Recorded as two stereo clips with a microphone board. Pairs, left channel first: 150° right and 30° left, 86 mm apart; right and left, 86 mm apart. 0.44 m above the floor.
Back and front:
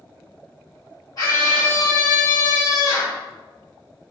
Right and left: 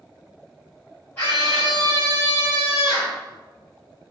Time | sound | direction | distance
1.2 | a scream | 150° right | 1.9 m